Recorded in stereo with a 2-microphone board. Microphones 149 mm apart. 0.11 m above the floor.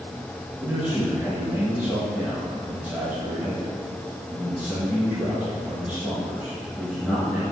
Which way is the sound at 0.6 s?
10° right (ahead or behind).